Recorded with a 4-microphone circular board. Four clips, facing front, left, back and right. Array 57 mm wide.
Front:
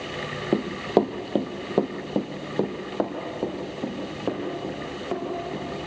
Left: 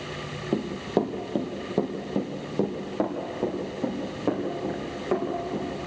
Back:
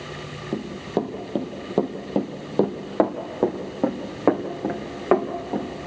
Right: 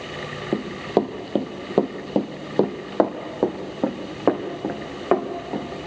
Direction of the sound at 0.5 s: 20° right.